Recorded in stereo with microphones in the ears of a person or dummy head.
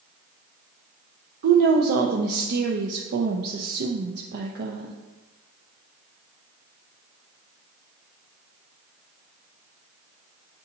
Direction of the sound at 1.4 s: 55° right (ahead or behind).